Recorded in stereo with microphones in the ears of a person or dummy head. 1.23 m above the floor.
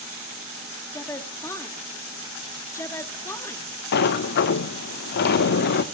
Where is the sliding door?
60° left (ahead or behind), 0.9 m.